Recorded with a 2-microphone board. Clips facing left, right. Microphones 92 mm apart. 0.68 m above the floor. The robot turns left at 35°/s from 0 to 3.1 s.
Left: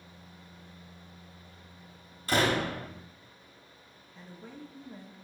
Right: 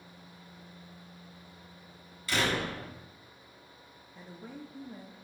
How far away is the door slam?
About 1.1 m.